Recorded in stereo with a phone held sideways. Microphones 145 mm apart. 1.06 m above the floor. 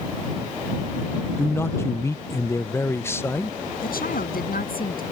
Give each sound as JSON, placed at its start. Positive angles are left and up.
{"t": 1.4, "sound": "a man speaking", "side_deg": 15}
{"t": 3.8, "sound": "a woman speaking", "side_deg": 85}